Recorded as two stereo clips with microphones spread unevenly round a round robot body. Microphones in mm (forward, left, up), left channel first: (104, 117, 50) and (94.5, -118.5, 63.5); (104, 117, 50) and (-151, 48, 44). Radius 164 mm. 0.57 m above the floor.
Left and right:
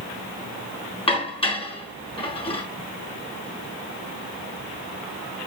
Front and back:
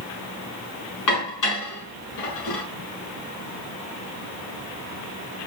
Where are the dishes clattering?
20° left, 6 m.